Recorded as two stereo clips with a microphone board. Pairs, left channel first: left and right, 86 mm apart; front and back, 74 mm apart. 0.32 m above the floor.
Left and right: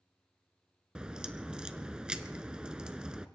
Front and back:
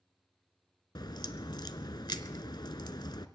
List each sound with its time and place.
0.9 s a crack: 10° right, 0.8 m